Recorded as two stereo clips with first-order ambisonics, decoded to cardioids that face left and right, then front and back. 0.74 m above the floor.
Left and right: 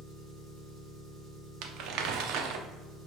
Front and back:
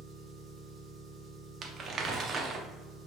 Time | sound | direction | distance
0.0 | an engine running | 115° right | 1.9 m
1.6 | crumpling | 120° right | 0.5 m